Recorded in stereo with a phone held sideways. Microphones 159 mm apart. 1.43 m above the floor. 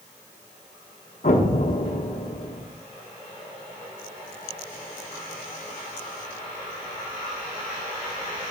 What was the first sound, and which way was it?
An explosion, 50° left (ahead or behind).